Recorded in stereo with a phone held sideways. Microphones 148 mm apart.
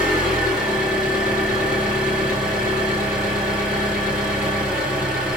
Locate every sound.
0.0 s an engine running: 5° right (ahead or behind), 1.9 m